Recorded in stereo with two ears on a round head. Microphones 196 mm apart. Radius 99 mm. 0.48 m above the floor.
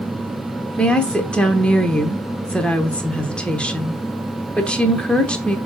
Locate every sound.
0.8 s a woman speaking: 5° left (ahead or behind), 0.9 m